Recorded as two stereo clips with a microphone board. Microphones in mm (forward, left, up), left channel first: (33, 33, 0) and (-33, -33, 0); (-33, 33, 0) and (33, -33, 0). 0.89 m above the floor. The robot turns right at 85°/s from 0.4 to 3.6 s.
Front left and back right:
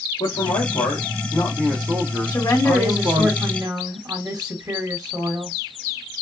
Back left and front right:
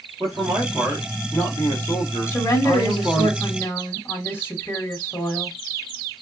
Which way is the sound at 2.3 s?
80° left.